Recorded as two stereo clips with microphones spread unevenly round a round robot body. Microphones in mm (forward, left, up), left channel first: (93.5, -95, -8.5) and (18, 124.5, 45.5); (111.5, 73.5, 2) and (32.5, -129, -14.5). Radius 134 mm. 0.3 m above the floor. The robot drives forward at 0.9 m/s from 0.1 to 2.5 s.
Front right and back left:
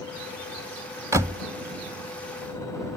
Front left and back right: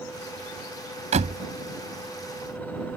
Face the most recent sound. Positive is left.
turn(degrees=-175)